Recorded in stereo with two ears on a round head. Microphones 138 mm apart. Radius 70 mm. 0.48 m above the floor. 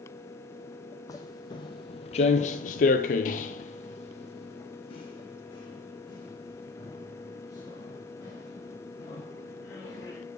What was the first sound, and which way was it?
Footsteps, 25° left (ahead or behind).